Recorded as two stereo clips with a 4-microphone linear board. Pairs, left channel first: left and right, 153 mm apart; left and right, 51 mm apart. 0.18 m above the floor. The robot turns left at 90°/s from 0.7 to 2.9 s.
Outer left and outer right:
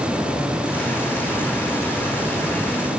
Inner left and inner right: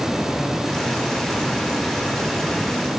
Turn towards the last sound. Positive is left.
No sound to turn to.